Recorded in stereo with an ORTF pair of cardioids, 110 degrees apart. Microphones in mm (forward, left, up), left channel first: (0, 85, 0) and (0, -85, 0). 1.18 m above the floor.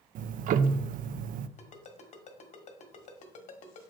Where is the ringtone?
50° left, 1.6 m.